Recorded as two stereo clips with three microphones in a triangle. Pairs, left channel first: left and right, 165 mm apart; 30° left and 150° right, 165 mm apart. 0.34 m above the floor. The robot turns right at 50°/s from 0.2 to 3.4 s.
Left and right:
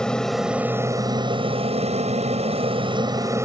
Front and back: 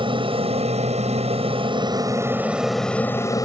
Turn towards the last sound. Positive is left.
turn(degrees=-25)